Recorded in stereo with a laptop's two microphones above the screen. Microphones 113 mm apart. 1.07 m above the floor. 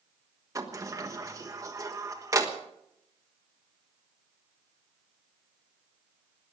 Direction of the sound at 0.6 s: 30° right (ahead or behind).